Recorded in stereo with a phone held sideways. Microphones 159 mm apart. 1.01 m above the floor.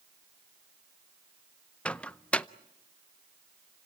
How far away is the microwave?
About 0.5 m.